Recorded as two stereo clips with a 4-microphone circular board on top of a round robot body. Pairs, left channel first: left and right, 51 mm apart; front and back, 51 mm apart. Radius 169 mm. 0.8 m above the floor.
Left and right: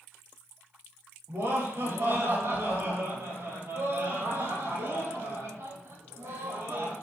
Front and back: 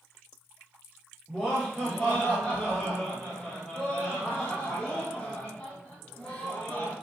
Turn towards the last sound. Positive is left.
turn(degrees=-75)